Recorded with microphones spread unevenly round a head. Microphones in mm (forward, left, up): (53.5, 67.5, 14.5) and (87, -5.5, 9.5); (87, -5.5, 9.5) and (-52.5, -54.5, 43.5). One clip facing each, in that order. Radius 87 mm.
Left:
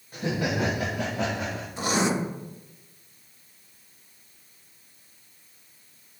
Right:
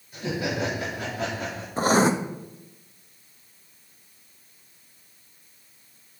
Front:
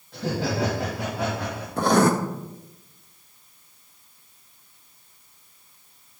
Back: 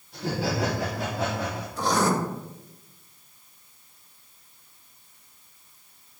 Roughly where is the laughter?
Left.